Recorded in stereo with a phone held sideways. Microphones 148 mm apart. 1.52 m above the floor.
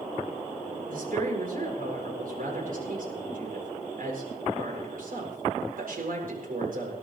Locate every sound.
0.9 s a woman speaking: 70° right (ahead or behind), 7.5 m